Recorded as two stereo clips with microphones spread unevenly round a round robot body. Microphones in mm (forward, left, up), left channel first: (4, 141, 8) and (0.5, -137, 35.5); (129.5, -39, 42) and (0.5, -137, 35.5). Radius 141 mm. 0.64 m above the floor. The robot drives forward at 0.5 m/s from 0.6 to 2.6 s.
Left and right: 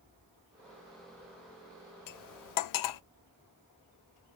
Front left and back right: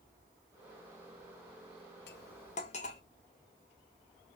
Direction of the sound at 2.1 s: 70° left.